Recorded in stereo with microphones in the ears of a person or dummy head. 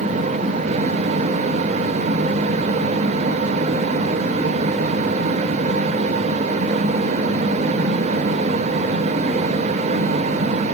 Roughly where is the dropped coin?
I don't hear a dropped coin.